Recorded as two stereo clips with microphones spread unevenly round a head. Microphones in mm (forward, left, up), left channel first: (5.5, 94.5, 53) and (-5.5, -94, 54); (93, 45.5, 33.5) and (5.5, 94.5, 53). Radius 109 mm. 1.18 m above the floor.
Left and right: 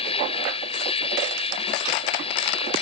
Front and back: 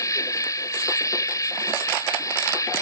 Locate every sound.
0.0 s an insect: 25° left